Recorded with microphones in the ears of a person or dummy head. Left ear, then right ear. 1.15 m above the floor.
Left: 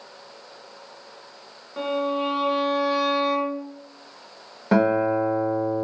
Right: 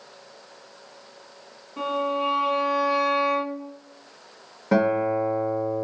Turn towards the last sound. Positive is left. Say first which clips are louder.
# left 1 dB
turn(degrees=20)  # may be behind; listen again after turning